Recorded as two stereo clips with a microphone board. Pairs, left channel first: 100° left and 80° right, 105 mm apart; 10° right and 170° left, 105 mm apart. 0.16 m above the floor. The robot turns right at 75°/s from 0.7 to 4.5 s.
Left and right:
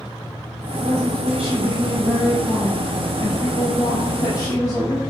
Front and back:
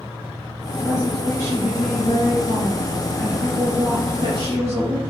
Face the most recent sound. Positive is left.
turn(degrees=165)